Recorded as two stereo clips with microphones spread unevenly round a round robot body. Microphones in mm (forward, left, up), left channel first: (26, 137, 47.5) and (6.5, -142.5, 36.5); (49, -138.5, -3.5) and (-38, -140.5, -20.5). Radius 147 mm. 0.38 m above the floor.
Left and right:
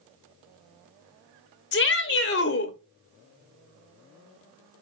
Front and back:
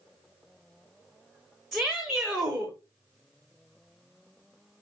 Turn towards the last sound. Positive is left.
turn(degrees=105)